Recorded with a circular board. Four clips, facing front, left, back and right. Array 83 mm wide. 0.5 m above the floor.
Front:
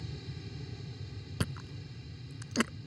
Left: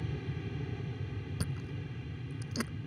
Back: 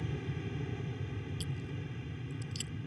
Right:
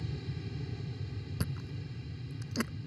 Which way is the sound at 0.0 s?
145° left.